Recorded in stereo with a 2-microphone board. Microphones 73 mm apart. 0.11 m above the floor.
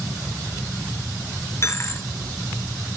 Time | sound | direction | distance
1.6 | a dropped coin | 40° left (ahead or behind) | 0.7 m